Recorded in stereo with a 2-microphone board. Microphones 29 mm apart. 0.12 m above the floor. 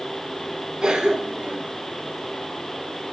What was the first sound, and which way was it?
A cough, 30° right (ahead or behind).